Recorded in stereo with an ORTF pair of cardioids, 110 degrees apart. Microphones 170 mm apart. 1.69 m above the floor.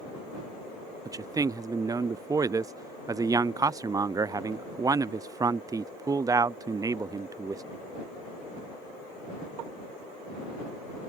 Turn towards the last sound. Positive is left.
turn(degrees=-20)